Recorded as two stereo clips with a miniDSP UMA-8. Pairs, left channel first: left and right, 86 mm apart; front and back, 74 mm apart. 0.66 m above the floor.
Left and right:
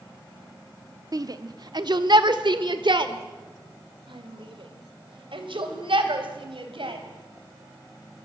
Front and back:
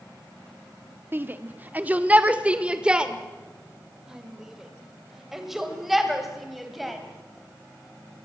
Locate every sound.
1.1 s a shout: 125° right, 1.3 m; by 7.0 s 90° right, 4 m